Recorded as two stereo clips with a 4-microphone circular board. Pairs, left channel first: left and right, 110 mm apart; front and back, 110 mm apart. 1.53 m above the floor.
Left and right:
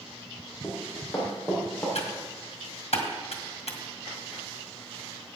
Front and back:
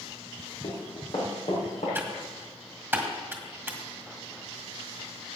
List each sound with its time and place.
0.6 s running footsteps: 25° left, 4.5 m; by 1.9 s 15° left, 6 m
1.9 s typing on a keyboard: 105° left, 1.8 m